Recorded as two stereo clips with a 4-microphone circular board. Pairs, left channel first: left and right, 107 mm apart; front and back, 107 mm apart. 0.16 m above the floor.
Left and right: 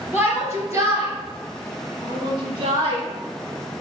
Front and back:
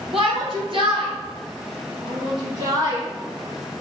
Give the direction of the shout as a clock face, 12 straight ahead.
5 o'clock.